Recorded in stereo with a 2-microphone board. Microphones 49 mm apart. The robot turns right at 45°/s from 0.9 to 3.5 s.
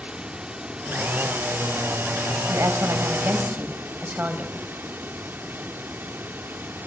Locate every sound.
0.0 s running water: 160° right, 0.9 m; by 6.9 s 40° right, 0.9 m
2.5 s a woman speaking: 80° right, 4 m; by 4.5 s 35° right, 4 m